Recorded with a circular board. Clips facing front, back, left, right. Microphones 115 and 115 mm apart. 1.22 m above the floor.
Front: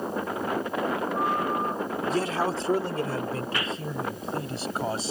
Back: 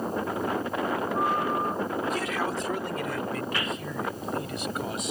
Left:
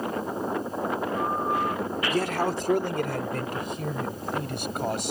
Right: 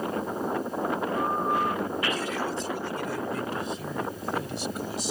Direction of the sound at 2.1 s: 55° left.